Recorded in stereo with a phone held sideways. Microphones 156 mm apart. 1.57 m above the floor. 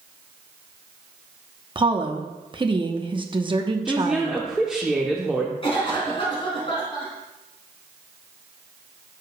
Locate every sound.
1.8 s a woman speaking: 30° right (ahead or behind), 0.9 m
3.9 s a woman speaking: 5° right (ahead or behind), 0.9 m
5.6 s a cough: 35° left (ahead or behind), 3.5 m